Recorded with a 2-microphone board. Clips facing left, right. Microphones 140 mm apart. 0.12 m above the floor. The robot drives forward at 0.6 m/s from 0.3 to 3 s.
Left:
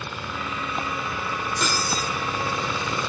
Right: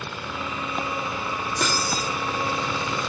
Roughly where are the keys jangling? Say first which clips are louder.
Right 2 dB; right.